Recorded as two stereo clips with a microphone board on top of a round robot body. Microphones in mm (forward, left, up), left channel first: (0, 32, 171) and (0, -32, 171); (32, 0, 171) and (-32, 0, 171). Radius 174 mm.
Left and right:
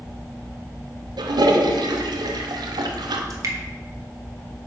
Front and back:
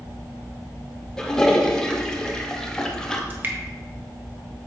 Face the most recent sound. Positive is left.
turn(degrees=-125)